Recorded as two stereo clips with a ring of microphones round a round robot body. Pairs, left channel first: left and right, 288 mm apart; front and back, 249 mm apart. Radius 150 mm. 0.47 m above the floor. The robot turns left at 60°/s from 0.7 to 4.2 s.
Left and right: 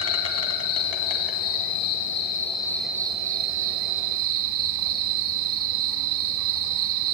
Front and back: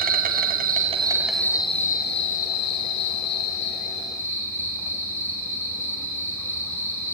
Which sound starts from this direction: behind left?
An insect, at 0.0 s.